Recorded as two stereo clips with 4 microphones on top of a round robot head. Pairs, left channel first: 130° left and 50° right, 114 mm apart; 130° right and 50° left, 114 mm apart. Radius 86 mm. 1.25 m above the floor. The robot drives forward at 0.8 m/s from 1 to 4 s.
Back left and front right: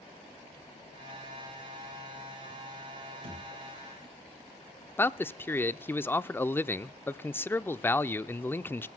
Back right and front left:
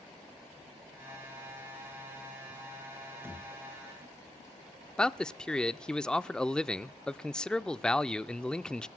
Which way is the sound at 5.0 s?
160° left.